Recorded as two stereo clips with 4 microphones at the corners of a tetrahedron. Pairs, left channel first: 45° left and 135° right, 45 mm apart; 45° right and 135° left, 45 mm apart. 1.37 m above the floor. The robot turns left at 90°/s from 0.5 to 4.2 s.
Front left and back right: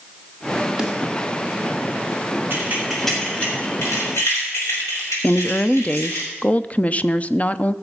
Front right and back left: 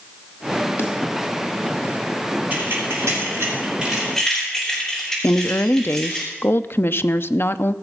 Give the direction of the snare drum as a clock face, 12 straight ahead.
2 o'clock.